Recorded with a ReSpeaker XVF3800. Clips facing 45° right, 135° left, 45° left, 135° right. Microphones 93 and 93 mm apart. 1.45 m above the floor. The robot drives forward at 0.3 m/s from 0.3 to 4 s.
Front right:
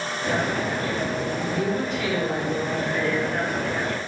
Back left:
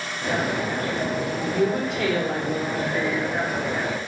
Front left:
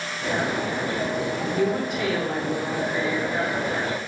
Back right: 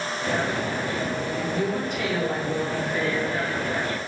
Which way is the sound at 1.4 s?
115° left.